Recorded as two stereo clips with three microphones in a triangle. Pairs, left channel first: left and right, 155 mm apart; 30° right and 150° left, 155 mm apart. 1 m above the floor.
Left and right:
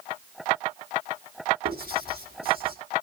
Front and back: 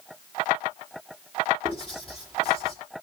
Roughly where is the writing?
Right.